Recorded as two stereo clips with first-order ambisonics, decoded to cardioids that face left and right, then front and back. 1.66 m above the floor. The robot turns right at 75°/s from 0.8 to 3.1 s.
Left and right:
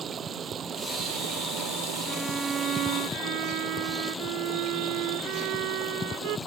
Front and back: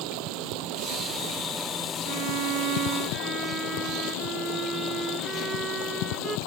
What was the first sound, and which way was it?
Running water, 155° right.